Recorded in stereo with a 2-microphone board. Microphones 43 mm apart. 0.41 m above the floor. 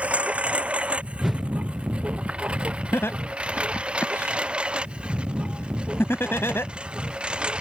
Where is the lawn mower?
30° right (ahead or behind); by 7.6 s 25° right (ahead or behind).